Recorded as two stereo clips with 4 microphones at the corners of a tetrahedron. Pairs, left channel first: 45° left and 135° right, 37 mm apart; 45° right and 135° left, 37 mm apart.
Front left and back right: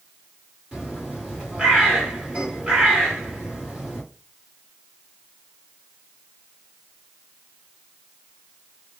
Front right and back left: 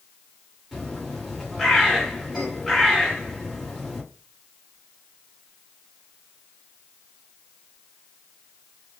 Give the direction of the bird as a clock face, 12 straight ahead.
4 o'clock.